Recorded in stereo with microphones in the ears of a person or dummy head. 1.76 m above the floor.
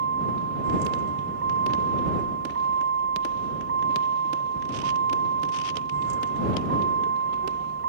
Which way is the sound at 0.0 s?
60° right (ahead or behind).